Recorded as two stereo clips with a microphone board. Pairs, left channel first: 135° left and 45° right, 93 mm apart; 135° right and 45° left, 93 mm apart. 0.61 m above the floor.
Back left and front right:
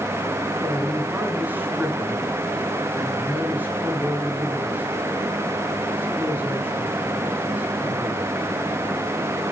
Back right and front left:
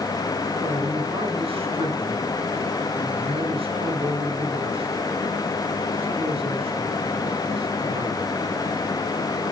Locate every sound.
0.6 s a man speaking: 25° left, 6 m